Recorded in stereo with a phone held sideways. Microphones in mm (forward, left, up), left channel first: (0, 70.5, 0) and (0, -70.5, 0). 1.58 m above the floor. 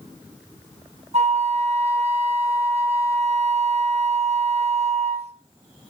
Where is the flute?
50° right (ahead or behind), 1.5 m.